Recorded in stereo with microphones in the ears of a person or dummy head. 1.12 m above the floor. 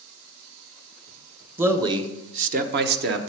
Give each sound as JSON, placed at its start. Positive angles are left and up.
{"t": 1.6, "sound": "a man speaking", "side_deg": -10, "distance_m": 0.8}